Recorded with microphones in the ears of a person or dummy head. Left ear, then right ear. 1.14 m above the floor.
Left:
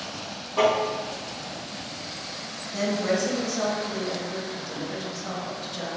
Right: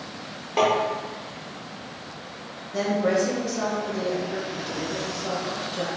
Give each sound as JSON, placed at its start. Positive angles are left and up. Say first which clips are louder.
{"t": 0.6, "sound": "tapping", "louder": "even", "side_deg": -60, "distance_m": 1.3}
{"t": 2.7, "sound": "a woman speaking", "louder": "right 3 dB", "side_deg": 0, "distance_m": 0.7}